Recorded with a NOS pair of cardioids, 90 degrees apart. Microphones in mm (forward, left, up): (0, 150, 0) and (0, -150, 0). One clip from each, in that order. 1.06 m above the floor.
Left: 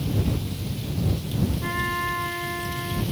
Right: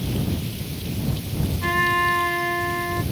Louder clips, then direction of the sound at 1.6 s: Right 8 dB; 45° right.